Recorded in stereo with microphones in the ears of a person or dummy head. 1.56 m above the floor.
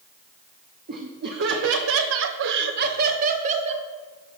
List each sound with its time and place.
0.9 s laughter: 45° right (ahead or behind), 0.8 m; by 3.9 s 35° right (ahead or behind), 1.2 m